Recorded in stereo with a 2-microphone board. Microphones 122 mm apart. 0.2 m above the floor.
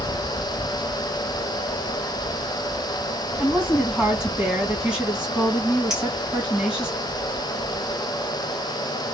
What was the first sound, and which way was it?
A woman speaking, 10° right (ahead or behind).